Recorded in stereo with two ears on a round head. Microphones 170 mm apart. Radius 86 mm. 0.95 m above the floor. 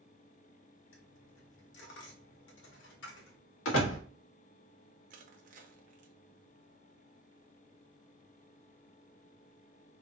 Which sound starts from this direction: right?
Crushing, at 5.1 s.